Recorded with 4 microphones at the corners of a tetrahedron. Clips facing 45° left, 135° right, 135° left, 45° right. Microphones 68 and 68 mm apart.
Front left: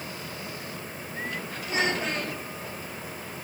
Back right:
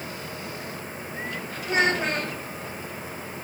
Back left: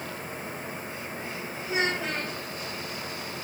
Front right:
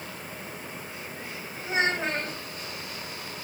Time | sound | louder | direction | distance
1.6 | a child speaking | back right 5 dB, front right 2 dB | 95° right | 6.5 m